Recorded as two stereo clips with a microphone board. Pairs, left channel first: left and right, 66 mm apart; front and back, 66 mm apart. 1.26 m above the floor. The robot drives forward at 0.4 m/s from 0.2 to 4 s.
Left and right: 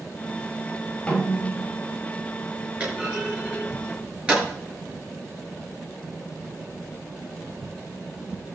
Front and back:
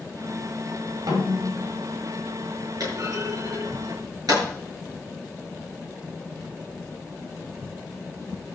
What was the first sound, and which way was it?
A snare drum, 165° left.